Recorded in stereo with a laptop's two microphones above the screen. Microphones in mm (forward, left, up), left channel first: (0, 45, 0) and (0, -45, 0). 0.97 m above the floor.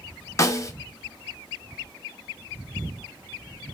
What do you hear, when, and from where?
0.4 s a snare drum: 35° left (ahead or behind), 0.5 m